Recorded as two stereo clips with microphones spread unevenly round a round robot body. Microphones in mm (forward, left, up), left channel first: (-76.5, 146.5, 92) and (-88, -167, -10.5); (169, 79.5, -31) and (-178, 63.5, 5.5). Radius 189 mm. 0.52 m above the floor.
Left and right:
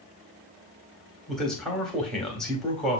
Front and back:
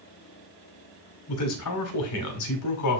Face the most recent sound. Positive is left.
turn(degrees=-15)